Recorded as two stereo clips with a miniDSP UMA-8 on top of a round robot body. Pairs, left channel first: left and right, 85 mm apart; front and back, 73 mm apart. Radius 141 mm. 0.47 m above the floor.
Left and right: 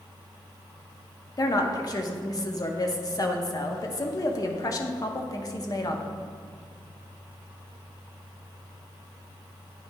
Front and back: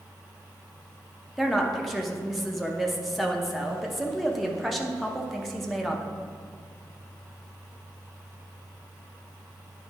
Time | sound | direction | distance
1.4 | a woman speaking | 90° left | 0.9 m